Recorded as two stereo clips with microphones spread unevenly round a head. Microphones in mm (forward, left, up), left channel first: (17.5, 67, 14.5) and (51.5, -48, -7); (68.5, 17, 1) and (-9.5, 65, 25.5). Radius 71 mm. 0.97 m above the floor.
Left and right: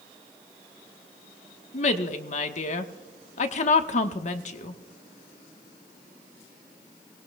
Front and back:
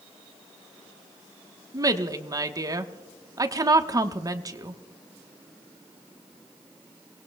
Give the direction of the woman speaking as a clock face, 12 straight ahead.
9 o'clock.